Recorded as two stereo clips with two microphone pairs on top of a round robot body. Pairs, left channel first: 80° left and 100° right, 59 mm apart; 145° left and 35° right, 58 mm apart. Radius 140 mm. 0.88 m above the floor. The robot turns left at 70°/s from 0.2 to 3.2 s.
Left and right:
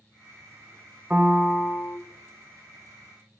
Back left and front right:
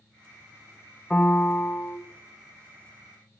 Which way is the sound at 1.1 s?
160° right.